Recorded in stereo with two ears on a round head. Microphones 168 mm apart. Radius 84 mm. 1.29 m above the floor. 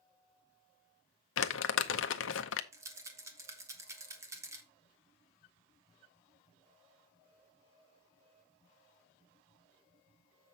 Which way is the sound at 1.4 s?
75° left (ahead or behind).